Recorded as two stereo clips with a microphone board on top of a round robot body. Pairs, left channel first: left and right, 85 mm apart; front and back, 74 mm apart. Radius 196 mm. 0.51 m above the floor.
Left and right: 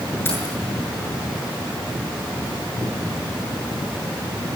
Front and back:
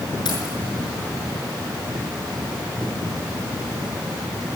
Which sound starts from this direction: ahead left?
Keys jangling, at 0.2 s.